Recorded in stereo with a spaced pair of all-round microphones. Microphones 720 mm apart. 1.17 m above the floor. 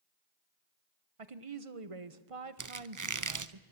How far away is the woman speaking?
About 1.0 m.